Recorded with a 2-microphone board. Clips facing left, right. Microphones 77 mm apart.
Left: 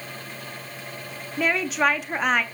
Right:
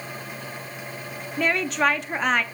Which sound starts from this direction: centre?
A woman speaking, at 1.4 s.